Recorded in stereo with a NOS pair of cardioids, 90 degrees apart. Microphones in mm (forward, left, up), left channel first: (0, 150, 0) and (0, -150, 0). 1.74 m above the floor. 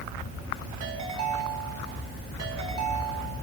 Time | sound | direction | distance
0.8 | a ringtone | 65° right | 5.5 m